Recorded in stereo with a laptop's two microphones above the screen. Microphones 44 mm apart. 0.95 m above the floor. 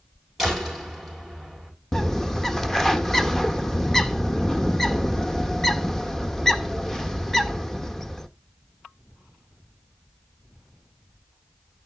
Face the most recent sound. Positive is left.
turn(degrees=10)  # may be behind; listen again after turning